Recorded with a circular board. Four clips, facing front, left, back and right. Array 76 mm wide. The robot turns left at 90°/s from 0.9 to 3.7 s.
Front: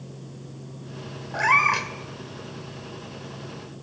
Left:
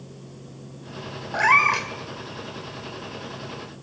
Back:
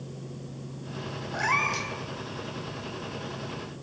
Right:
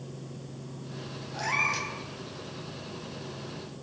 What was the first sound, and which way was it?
A cat meowing, 80° left.